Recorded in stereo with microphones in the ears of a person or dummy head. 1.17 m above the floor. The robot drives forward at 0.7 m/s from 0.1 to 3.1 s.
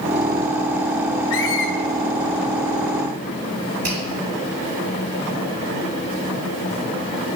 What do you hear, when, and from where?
1.3 s a squeak: 65° left (ahead or behind), 1.6 m
3.8 s a finger snap: 80° right, 5 m